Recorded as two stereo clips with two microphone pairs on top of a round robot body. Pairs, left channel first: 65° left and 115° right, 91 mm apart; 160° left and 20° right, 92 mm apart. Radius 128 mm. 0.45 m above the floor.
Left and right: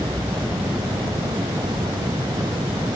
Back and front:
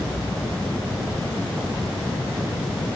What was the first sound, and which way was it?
Only background noise.